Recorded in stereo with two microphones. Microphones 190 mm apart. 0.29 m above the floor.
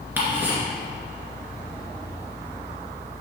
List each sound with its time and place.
0.2 s ticking: 10° right (ahead or behind), 2 m